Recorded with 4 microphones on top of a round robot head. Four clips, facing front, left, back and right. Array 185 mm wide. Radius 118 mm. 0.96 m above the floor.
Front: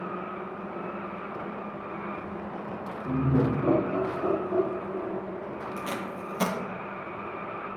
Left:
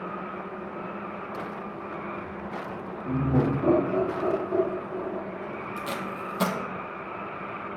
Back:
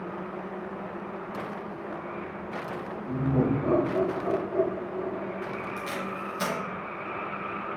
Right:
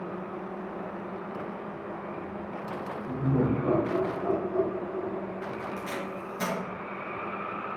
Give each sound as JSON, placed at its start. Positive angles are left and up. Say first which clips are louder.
{"t": 3.0, "sound": "laughter", "louder": "left 2 dB, front 1 dB", "azimuth_deg": 70, "distance_m": 2.0}
{"t": 5.8, "sound": "tape being pulled", "louder": "left 2 dB, even", "azimuth_deg": 50, "distance_m": 0.9}